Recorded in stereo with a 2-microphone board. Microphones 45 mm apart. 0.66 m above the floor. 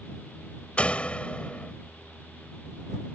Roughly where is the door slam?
Left.